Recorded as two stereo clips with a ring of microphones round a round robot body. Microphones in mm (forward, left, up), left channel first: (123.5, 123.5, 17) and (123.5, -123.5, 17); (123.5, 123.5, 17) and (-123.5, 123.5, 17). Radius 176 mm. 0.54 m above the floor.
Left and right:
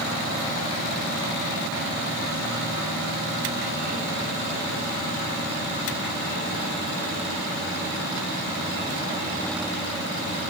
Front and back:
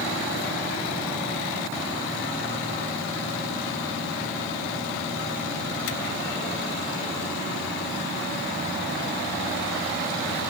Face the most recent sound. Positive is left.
No sound to turn to.